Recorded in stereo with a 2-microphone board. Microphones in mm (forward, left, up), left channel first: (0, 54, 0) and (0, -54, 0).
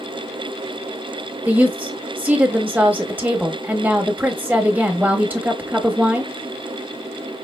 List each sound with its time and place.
1.4 s a woman speaking: 15° right (ahead or behind), 1.1 m